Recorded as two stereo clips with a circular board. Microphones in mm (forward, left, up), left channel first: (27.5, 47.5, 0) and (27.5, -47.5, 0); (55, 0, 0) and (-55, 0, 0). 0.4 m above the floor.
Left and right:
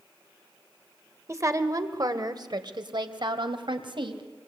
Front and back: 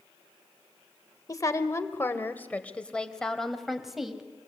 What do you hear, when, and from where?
1.3 s a woman speaking: 45° right, 1.9 m; by 4.2 s 95° right, 3 m